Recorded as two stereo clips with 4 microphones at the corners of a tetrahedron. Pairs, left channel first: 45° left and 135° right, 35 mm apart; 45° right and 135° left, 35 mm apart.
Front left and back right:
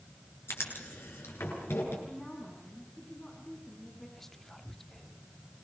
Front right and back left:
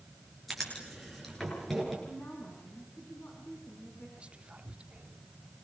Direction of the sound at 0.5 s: 45° left.